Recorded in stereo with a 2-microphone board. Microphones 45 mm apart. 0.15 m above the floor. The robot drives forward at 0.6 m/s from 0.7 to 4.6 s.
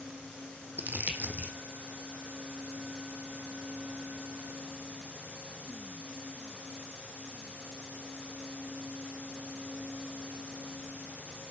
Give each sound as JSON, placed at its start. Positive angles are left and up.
{"t": 0.8, "sound": "crumpling", "side_deg": -45, "distance_m": 1.5}